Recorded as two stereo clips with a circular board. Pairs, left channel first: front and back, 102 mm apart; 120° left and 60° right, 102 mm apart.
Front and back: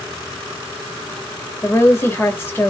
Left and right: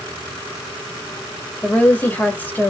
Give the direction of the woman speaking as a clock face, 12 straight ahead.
10 o'clock.